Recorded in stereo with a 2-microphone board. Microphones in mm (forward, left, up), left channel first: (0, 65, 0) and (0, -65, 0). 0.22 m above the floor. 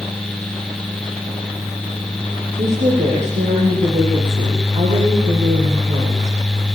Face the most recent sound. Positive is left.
turn(degrees=-65)  # may be behind; listen again after turning